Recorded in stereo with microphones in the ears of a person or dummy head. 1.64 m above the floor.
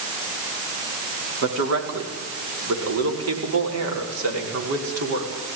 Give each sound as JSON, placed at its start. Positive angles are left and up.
{"t": 1.4, "sound": "a man speaking", "side_deg": -75, "distance_m": 5.0}